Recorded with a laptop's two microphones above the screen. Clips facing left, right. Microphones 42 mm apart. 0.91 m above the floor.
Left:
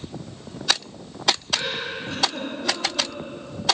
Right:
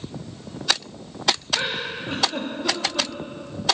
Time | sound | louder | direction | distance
1.5 | a giggle | right 1 dB | 25° right (ahead or behind) | 1.8 m